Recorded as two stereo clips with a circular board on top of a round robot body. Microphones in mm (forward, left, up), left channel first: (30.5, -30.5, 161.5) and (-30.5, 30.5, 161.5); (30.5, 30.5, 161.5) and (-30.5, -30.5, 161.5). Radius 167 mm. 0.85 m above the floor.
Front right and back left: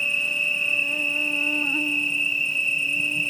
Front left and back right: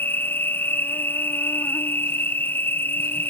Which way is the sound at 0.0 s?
30° left.